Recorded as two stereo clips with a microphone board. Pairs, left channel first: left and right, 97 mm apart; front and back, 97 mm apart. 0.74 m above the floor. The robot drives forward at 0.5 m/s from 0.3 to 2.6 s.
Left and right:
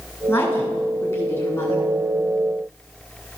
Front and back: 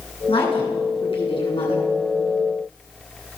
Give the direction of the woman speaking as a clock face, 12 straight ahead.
11 o'clock.